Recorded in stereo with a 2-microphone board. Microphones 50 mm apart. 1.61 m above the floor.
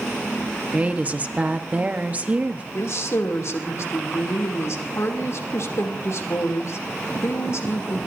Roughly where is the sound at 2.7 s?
Left.